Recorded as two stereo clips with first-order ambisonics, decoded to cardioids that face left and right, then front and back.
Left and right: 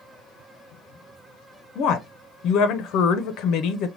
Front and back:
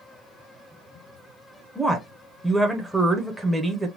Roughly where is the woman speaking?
Left.